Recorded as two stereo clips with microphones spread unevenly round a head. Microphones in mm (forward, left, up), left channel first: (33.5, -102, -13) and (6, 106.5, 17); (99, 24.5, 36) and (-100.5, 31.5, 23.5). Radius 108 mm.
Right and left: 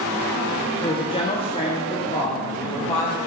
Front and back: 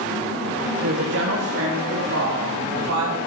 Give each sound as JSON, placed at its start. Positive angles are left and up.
{"t": 0.8, "sound": "a woman speaking", "azimuth_deg": -145, "distance_m": 1.3}